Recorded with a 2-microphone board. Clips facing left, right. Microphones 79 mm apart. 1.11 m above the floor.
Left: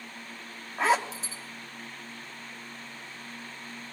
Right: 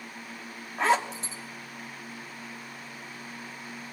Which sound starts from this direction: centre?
A zipper, at 0.8 s.